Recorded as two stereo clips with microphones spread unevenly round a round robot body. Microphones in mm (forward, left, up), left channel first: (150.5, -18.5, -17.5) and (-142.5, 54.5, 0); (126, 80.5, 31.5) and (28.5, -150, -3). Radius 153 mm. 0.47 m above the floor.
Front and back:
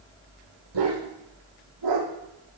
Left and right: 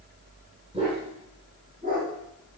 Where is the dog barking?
175° left, 6 m; by 2.6 s 175° right, 7 m.